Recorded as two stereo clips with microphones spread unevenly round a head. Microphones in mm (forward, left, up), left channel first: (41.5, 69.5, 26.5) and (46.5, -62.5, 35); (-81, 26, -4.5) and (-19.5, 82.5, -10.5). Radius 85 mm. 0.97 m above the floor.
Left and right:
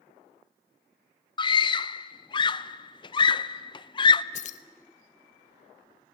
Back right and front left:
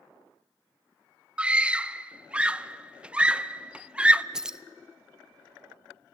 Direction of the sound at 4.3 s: 125° left.